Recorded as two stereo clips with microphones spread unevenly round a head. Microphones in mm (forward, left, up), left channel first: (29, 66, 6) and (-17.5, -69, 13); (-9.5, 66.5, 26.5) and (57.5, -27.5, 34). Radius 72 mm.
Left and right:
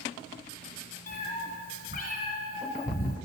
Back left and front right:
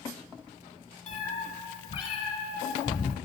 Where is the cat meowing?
85° left, 1.3 m.